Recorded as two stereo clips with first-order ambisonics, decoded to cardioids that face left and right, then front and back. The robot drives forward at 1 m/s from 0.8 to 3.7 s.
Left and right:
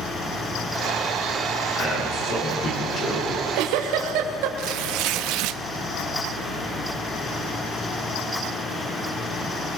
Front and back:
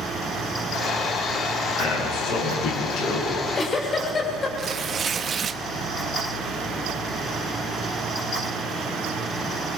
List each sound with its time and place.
1.8 s a man speaking: 30° left, 8.5 m; by 3.2 s 35° left, 7.5 m
3.3 s a giggle: 65° right, 2.5 m; by 4.5 s 70° right, 2.5 m
4.6 s tearing paper: 115° right, 0.7 m